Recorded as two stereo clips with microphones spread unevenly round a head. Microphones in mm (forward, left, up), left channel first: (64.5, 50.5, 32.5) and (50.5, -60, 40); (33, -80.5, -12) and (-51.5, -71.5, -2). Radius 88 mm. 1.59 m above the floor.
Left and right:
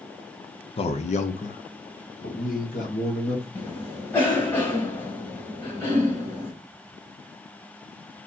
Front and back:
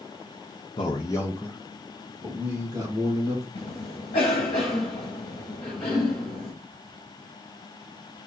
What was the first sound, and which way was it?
A man speaking, 45° left.